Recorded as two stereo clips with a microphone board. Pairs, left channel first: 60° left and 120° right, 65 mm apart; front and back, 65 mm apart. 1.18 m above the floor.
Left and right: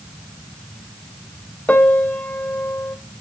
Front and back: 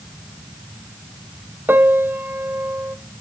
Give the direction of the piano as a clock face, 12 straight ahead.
8 o'clock.